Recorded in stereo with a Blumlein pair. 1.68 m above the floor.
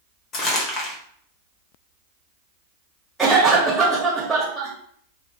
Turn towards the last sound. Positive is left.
turn(degrees=-10)